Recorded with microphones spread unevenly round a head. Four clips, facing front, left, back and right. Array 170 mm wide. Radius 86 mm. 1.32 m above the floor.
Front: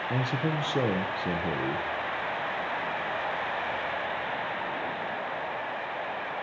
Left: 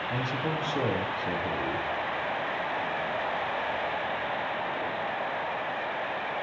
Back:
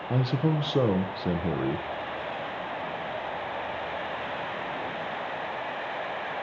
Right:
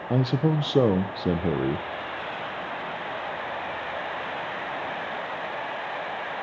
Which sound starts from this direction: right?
A man speaking, at 0.1 s.